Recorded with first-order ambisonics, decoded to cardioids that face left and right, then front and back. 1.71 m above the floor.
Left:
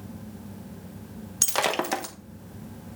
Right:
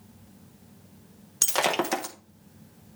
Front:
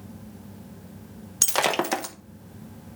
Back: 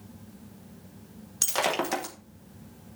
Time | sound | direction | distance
1.4 | breaking glass | 5° left | 0.9 m